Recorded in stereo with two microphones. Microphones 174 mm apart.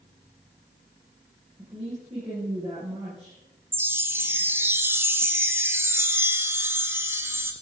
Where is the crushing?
I don't hear crushing.